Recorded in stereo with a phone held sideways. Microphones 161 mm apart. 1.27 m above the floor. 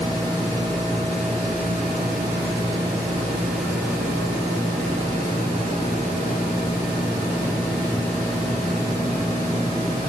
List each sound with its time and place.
Only background noise.